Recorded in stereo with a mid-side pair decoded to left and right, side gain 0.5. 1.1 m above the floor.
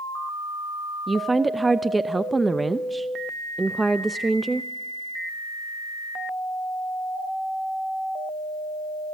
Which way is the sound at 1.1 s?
15° right.